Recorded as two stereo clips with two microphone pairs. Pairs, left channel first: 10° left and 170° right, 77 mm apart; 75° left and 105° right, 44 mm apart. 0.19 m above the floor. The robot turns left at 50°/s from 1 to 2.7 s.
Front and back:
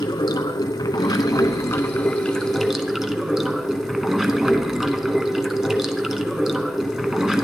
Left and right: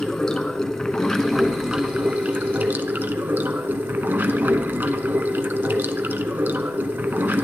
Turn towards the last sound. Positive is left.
turn(degrees=-85)